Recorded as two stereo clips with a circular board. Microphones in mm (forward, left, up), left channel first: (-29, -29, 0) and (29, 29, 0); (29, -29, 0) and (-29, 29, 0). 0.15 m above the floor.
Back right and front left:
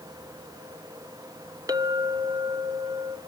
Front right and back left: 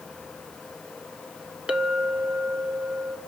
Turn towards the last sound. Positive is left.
turn(degrees=60)